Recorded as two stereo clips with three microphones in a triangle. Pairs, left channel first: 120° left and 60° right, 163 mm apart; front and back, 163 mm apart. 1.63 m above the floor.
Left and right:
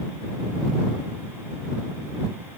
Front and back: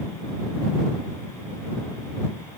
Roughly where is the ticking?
No ticking in this recording.